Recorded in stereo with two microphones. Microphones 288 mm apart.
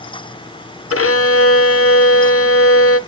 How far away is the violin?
About 0.5 m.